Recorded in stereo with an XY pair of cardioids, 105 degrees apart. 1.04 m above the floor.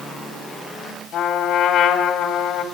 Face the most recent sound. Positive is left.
turn(degrees=70)